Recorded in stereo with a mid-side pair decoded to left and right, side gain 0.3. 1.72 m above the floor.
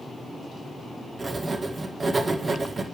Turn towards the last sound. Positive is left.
turn(degrees=-50)